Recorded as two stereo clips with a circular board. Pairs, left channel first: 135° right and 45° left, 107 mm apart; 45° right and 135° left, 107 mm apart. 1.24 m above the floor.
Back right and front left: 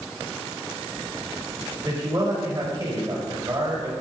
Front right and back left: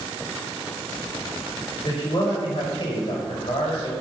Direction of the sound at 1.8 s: 15° right.